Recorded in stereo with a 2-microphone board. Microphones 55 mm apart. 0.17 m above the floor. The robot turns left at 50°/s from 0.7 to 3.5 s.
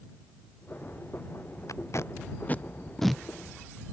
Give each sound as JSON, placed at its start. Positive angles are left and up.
{"t": 1.7, "sound": "tape being pulled", "side_deg": 70}